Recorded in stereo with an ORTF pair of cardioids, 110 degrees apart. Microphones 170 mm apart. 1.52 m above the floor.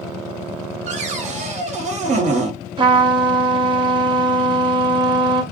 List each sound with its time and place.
0.9 s a cupboard door: 45° right, 1.3 m
2.8 s a trumpet: 30° right, 1.1 m